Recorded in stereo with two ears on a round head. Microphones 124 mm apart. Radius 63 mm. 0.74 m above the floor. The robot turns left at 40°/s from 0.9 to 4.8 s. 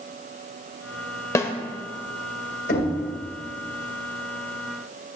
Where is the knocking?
80° left, 2.5 m; by 2.9 s 75° left (ahead or behind), 2.5 m.